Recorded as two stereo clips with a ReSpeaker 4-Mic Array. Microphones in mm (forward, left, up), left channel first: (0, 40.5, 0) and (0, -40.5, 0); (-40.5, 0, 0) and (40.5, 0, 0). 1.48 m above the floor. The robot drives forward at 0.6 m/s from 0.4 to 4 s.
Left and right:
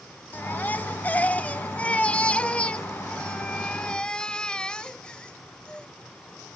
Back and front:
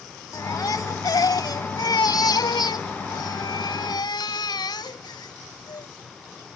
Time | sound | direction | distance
0.3 | a baby crying | 150° left | ?